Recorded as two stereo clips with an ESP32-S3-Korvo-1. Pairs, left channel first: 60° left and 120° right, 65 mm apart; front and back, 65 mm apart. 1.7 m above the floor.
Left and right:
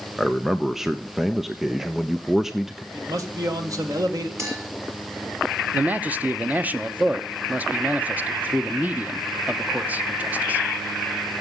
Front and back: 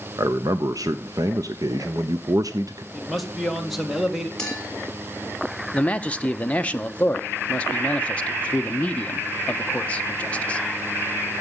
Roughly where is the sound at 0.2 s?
Behind left.